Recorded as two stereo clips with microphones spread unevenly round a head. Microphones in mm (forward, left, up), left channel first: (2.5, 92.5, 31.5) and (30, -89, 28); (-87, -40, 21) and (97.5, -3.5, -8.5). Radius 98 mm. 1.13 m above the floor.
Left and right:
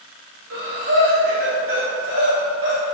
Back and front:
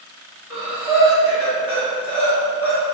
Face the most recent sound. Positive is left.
turn(degrees=-70)